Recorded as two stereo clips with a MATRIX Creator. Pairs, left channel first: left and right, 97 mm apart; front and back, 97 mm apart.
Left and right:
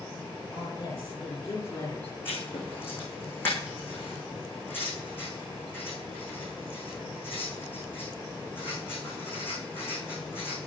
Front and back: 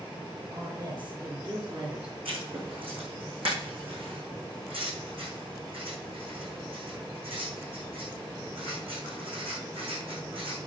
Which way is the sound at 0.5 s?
135° left.